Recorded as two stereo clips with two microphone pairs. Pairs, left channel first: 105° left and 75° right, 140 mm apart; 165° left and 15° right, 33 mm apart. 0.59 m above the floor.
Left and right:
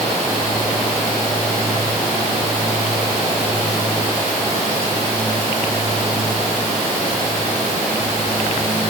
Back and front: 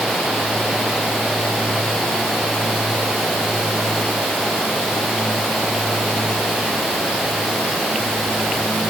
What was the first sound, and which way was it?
Only background noise.